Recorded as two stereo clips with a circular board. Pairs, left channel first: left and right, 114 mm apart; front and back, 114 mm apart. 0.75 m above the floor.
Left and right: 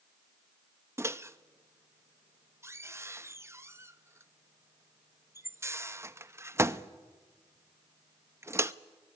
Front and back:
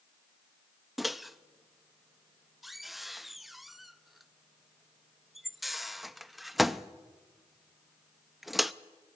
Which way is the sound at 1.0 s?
95° right.